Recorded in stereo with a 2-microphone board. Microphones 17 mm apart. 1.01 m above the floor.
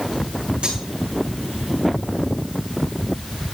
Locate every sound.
0.6 s cutlery clinking: 80° right, 7.5 m